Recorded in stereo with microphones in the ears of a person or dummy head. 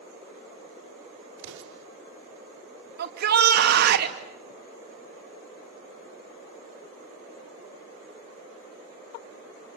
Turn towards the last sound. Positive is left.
turn(degrees=-60)  # may be behind; listen again after turning